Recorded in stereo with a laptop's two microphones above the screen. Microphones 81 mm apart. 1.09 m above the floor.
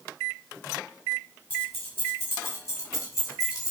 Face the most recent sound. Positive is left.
turn(degrees=45)  # may be behind; listen again after turning